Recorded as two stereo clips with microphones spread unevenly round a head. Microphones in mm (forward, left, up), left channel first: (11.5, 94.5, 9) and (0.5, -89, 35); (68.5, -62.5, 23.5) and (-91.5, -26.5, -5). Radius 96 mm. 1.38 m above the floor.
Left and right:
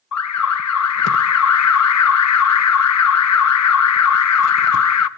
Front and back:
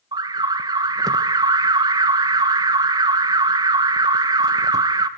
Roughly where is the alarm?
Left.